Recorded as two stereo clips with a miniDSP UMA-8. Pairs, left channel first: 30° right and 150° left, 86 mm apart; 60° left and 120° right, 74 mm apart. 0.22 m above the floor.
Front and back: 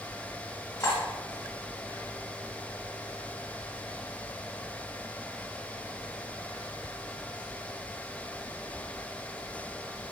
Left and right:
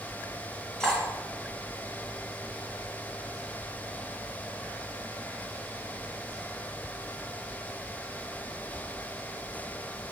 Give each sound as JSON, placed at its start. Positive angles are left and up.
{"t": 0.8, "sound": "cutlery clinking", "azimuth_deg": -25, "distance_m": 1.0}